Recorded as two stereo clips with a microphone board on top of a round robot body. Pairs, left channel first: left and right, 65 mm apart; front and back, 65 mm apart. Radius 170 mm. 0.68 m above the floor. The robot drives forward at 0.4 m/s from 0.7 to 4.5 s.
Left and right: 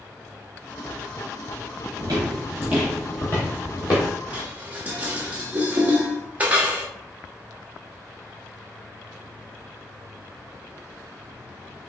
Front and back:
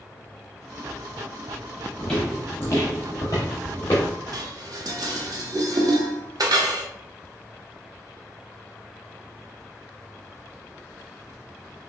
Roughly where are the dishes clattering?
Behind right.